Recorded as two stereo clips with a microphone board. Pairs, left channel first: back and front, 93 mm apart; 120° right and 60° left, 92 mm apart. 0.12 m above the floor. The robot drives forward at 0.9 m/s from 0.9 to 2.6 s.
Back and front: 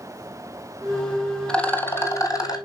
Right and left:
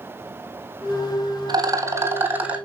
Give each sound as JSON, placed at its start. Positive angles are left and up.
{"t": 1.5, "sound": "a rattle", "azimuth_deg": 100, "distance_m": 1.2}